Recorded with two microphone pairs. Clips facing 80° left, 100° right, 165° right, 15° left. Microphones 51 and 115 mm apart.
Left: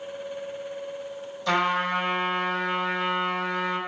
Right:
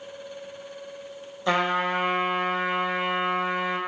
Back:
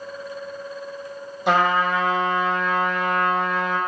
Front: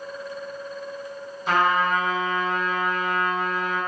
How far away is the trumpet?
About 0.9 m.